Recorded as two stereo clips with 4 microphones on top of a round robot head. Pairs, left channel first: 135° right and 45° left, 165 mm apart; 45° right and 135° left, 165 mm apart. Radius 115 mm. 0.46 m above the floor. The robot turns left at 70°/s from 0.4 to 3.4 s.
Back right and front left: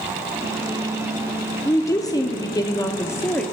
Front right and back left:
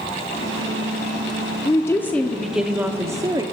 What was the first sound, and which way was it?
A woman speaking, 80° right.